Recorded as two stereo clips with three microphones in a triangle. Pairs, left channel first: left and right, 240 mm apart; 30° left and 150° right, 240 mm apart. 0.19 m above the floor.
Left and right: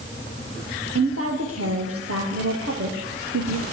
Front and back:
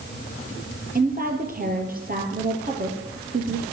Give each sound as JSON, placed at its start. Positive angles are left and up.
{"t": 0.9, "sound": "a woman speaking", "azimuth_deg": -100, "distance_m": 4.0}